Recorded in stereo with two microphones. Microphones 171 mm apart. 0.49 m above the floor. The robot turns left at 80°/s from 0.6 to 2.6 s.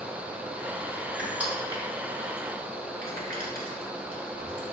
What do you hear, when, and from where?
1.2 s crushing: 5° left (ahead or behind), 1.2 m; by 4.6 s 60° right (ahead or behind), 1.2 m